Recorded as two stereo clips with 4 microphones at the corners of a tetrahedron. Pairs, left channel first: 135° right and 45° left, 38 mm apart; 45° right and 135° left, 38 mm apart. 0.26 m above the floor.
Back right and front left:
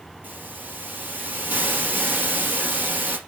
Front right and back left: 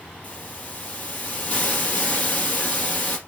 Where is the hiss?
5° left, 3 m.